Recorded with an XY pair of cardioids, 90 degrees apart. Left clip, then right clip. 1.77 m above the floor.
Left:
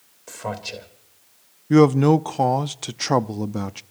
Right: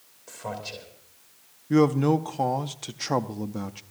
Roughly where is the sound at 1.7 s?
Ahead left.